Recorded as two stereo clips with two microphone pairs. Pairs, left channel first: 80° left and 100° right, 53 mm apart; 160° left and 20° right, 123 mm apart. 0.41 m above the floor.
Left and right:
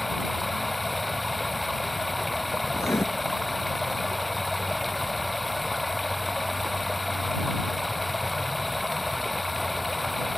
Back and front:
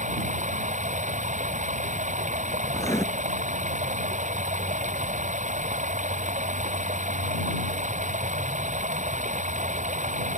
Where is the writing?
100° left.